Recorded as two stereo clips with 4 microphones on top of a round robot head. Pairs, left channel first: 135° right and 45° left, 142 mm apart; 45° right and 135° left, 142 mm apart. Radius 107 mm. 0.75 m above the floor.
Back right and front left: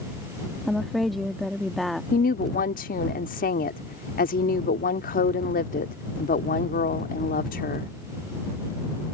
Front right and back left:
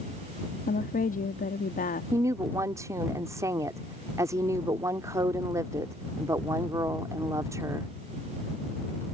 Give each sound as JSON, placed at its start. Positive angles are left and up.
{"t": 0.7, "sound": "a woman speaking", "azimuth_deg": -45}
{"t": 2.1, "sound": "a woman speaking", "azimuth_deg": -155}